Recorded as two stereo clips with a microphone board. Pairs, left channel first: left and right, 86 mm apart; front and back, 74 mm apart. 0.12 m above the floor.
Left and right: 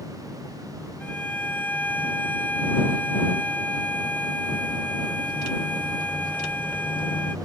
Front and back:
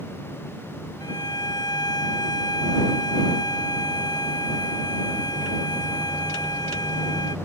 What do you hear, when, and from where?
1.0 s a violin: 20° left